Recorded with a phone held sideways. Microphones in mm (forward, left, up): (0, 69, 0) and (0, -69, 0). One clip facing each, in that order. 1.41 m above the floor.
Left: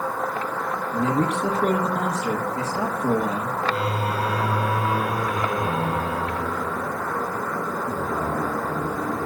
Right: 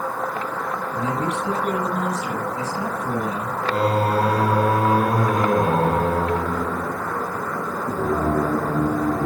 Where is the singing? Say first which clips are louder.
Right 6 dB; 45° right (ahead or behind), 0.5 m.